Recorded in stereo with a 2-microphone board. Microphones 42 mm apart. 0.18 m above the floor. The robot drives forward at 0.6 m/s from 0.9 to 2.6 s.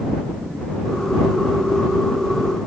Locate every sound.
Only background noise.